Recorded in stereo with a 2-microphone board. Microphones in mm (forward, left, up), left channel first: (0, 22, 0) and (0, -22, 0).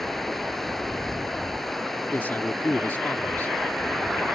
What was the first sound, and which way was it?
Running water, centre (ahead or behind).